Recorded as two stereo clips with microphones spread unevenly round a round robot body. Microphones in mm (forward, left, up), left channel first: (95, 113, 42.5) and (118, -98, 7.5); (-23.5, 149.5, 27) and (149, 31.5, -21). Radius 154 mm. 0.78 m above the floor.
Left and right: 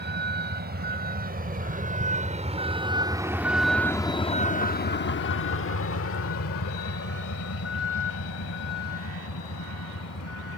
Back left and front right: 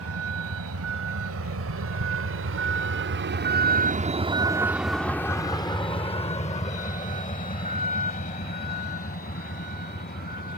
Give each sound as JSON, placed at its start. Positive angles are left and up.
{"t": 0.0, "sound": "a vehicle", "azimuth_deg": -45}